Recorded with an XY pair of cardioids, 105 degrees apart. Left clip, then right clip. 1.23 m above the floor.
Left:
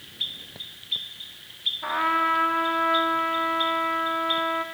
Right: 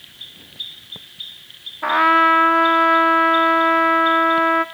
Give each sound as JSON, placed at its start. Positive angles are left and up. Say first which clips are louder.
{"t": 1.8, "sound": "a trumpet", "louder": "right 11 dB", "azimuth_deg": -60, "distance_m": 0.9}